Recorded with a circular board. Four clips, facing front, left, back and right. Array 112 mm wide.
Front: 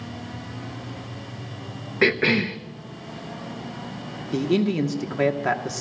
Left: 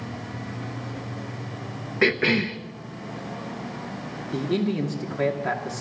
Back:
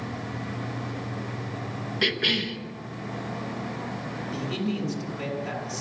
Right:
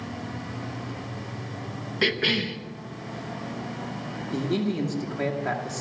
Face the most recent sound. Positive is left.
turn(degrees=5)